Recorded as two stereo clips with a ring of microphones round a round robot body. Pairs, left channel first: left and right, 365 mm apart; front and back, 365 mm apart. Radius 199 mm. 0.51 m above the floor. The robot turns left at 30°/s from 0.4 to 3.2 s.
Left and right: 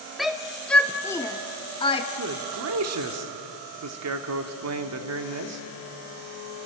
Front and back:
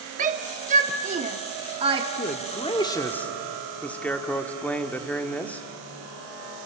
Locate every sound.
0.2 s a shout: straight behind, 1.0 m; by 2.1 s 130° left, 1.0 m
2.2 s a man speaking: 55° right, 1.3 m; by 5.6 s 85° right, 1.3 m